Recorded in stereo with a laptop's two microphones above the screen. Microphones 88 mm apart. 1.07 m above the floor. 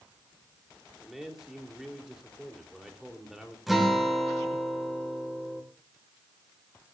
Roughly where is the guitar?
Centre.